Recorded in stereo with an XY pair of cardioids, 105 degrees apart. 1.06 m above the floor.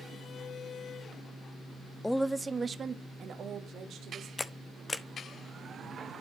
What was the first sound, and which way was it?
A woman speaking, 10° left.